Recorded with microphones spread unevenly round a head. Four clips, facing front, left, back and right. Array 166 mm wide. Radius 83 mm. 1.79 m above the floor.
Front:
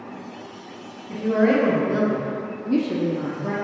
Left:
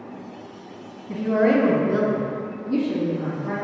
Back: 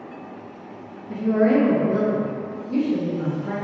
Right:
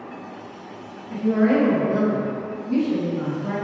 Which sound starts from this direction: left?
A woman speaking, at 1.1 s.